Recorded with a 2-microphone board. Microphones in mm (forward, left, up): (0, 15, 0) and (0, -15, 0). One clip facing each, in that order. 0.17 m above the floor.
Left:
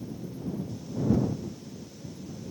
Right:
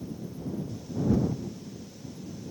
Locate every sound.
Only background noise.